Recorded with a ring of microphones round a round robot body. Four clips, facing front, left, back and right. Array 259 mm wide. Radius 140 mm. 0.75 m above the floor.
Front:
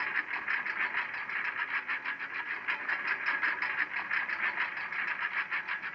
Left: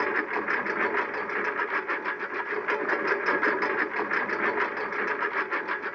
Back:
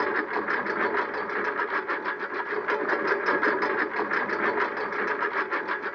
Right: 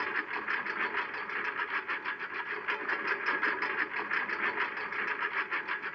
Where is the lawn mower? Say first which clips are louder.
Left 8 dB, back 10 dB; 145° left; by 6.0 s 150° left.